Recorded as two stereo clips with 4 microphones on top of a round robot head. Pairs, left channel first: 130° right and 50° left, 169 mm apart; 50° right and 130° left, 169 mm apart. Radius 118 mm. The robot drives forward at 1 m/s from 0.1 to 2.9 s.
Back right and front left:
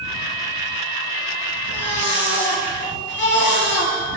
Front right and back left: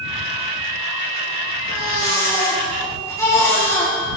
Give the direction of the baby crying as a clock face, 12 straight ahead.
4 o'clock.